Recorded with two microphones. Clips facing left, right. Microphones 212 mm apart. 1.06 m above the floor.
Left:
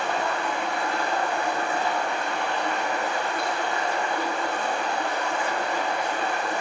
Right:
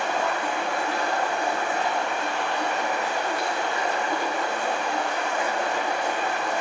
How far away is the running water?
About 2.5 m.